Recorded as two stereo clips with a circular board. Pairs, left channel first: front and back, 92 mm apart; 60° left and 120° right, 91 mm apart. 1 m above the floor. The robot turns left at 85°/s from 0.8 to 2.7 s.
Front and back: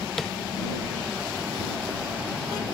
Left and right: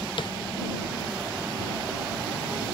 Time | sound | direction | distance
0.2 | tapping | 85° left | ?